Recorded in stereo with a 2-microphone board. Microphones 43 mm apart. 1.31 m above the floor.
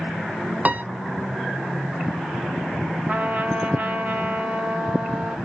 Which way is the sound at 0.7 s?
35° right (ahead or behind).